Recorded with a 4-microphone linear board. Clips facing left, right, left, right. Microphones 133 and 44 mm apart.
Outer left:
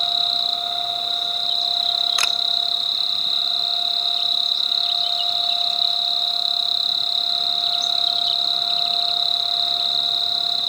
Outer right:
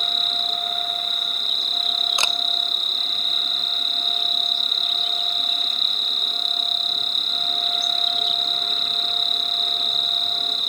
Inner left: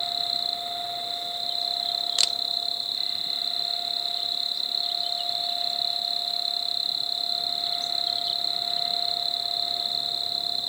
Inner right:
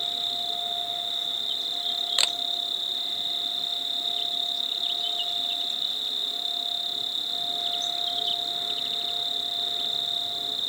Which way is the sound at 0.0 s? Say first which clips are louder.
Outer left 3 dB, inner left 1 dB; 50° right (ahead or behind).